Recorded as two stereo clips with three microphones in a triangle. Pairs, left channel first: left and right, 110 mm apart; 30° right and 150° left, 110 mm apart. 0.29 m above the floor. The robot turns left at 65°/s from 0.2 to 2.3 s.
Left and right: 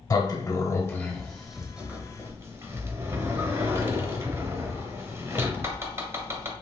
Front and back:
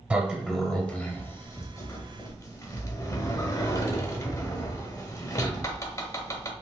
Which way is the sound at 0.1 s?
85° left.